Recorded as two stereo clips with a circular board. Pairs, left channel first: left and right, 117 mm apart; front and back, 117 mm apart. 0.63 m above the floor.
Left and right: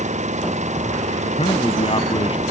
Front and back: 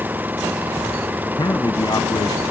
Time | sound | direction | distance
0.0 | an engine running | 105° right | ?
1.2 | a man speaking | 55° left | ?